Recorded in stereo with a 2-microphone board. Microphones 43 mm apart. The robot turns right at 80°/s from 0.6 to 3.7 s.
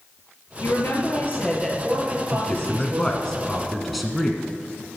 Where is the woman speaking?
90° left, 3.5 m; by 3.3 s 55° right, 3.5 m.